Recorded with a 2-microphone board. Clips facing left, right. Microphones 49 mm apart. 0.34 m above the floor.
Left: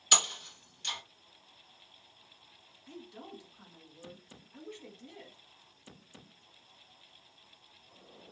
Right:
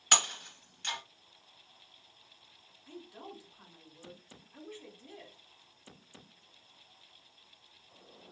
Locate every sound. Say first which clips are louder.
0.1 s breaking glass: right 1 dB; 45° right (ahead or behind), 1.4 m
2.9 s a woman speaking: even; 15° right (ahead or behind), 1.2 m